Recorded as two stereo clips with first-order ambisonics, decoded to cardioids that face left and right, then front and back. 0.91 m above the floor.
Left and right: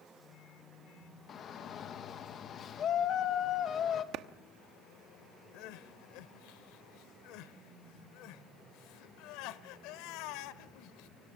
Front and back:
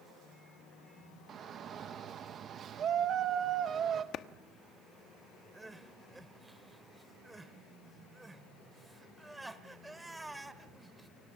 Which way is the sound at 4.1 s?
50° right.